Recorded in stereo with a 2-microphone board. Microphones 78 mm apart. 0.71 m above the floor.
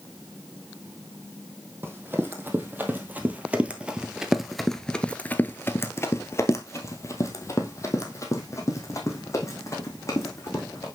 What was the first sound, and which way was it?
Running footsteps, 25° right (ahead or behind).